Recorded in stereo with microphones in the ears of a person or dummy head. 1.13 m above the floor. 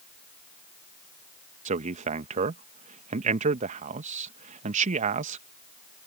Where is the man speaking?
40° right (ahead or behind).